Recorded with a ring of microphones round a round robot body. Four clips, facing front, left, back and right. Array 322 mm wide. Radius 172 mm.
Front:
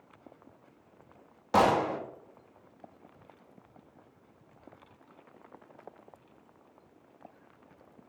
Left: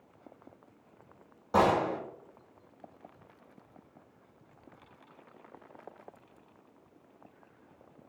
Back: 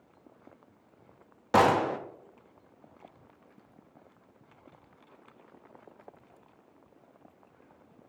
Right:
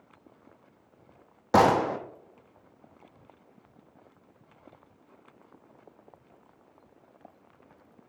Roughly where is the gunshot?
Right.